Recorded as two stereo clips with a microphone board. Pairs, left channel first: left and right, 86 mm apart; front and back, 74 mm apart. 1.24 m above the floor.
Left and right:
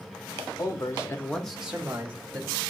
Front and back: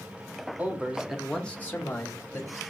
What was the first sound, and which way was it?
A man speaking, 120° left.